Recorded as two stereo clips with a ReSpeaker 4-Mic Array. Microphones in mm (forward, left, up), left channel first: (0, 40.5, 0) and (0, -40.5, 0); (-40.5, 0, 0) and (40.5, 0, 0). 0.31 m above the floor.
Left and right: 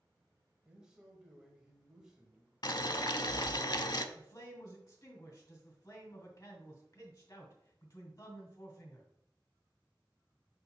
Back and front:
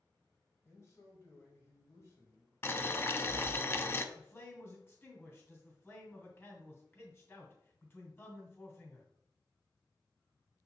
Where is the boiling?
120° left, 0.6 m.